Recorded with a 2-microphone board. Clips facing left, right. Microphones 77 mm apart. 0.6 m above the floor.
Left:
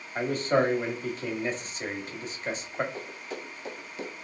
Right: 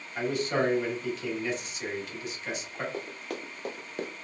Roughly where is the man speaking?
Left.